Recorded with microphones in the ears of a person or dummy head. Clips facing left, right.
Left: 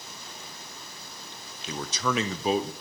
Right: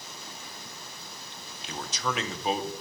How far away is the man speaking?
About 0.7 m.